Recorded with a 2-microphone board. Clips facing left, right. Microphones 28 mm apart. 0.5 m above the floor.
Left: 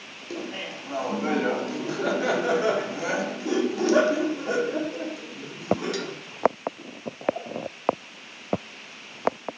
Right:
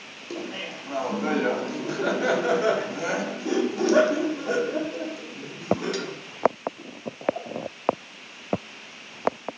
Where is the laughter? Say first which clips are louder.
Even; 5° right (ahead or behind), 0.9 m.